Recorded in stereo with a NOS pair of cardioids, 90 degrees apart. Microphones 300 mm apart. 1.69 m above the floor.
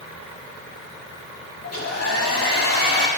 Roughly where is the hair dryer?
Ahead left.